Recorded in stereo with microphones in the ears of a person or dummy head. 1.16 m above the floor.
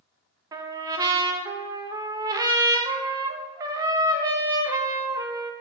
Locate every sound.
0.5 s a trumpet: 20° right (ahead or behind), 0.6 m